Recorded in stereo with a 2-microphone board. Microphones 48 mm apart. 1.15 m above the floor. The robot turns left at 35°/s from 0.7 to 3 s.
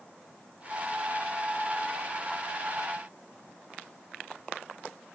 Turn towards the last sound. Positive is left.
No sound to turn to.